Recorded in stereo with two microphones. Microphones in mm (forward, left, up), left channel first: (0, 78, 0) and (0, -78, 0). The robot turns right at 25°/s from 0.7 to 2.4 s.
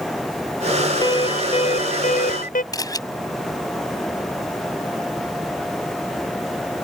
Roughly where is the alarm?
Ahead left.